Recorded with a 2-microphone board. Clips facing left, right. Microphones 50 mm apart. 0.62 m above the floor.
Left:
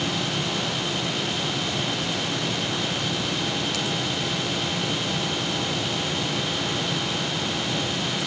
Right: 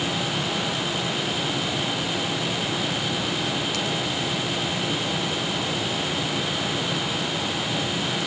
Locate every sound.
Only background noise.